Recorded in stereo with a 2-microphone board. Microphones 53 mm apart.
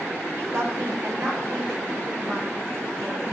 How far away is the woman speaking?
About 6.5 m.